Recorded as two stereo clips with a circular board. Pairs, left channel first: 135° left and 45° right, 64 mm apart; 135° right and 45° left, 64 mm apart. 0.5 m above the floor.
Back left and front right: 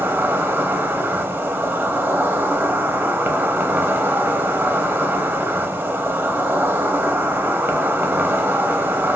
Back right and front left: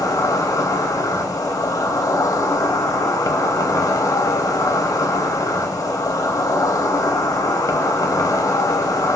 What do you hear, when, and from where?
0.0 s an insect: 105° right, 0.7 m